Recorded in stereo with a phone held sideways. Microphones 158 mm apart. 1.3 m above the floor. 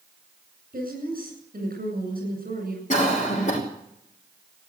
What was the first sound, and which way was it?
A woman speaking, 65° right (ahead or behind).